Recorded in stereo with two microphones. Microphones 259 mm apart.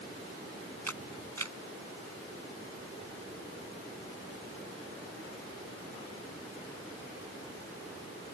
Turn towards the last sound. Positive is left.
turn(degrees=-85)